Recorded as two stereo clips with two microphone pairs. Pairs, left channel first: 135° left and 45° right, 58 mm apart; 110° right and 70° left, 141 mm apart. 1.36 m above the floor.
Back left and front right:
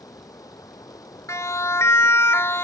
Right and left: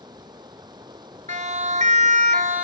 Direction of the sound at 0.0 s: 130° left.